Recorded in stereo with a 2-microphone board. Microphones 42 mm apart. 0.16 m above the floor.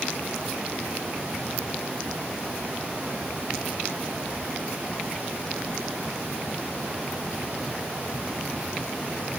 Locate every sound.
Only background noise.